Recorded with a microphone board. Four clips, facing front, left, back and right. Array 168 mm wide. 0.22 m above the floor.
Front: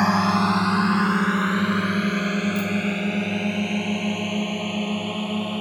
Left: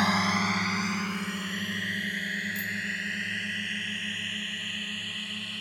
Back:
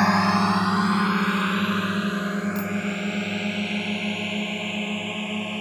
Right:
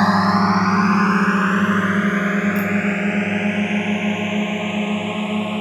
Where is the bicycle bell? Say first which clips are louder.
Right 16 dB, front 3 dB; 125° right.